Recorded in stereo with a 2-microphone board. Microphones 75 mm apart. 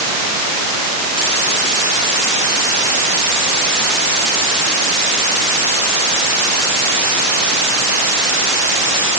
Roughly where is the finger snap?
No finger snap in this recording.